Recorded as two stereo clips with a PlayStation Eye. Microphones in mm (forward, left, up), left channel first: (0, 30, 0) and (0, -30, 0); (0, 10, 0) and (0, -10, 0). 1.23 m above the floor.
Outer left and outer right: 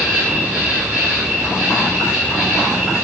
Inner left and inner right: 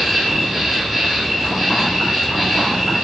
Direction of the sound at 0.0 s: 20° right (ahead or behind).